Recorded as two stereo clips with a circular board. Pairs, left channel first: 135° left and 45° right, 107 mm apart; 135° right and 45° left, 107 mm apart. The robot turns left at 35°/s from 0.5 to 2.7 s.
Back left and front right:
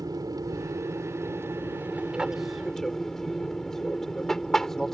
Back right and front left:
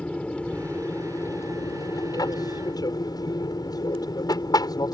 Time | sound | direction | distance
0.0 | an aircraft | 65° right | ?